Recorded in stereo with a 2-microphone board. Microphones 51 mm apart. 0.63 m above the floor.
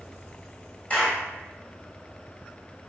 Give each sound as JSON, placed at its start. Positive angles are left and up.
{"t": 0.9, "sound": "a clap", "side_deg": 20, "distance_m": 3.0}